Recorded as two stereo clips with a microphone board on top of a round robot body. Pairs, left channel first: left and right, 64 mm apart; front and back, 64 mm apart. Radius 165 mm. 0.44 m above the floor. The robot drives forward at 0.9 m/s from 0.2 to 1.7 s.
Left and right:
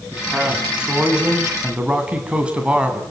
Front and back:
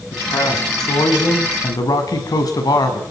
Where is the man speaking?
10° right, 7.5 m; by 3.0 s 15° right, 6.5 m.